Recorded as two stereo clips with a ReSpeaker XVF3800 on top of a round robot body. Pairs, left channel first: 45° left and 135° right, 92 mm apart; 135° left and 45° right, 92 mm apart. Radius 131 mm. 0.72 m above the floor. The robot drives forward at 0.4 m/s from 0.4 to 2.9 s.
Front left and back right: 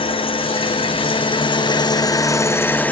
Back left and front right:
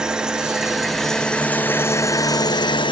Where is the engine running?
35° left, 1.0 m; by 2.9 s 115° left, 0.7 m.